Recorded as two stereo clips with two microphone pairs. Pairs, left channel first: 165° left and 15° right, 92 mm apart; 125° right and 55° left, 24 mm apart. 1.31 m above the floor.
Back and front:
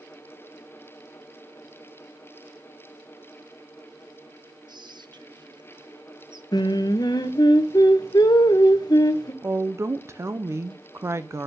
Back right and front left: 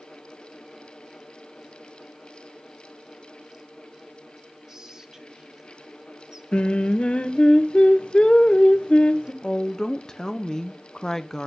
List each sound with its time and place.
4.7 s whispering: straight ahead, 1.0 m
6.5 s singing: 150° right, 0.9 m
9.4 s a woman speaking: 60° right, 0.7 m